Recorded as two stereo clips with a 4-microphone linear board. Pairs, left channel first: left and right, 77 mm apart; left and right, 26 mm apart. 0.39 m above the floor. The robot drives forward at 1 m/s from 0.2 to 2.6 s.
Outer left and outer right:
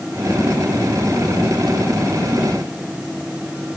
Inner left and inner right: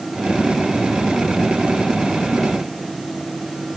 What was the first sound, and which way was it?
Only background noise.